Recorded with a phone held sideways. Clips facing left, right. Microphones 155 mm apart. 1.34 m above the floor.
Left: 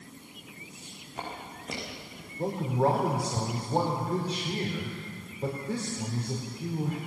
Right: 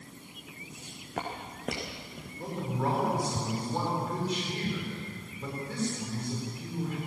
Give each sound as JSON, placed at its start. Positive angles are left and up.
{"t": 0.7, "sound": "footsteps", "side_deg": -65, "distance_m": 5.0}
{"t": 2.4, "sound": "a man speaking", "side_deg": 35, "distance_m": 4.0}